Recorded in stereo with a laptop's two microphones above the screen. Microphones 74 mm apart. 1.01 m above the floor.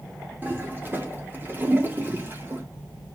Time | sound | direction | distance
0.4 | a toilet flushing | 30° right (ahead or behind) | 0.9 m